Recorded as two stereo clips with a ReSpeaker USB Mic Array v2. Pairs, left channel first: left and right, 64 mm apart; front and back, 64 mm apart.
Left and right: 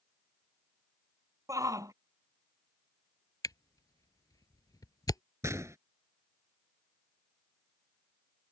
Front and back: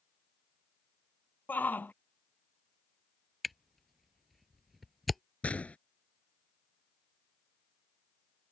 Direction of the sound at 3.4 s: 90° left.